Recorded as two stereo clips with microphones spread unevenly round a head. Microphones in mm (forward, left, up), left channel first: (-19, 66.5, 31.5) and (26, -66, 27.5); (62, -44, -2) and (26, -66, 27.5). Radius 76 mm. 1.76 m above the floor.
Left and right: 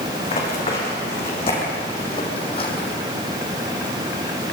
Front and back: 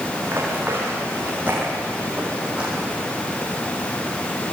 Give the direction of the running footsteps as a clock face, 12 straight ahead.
7 o'clock.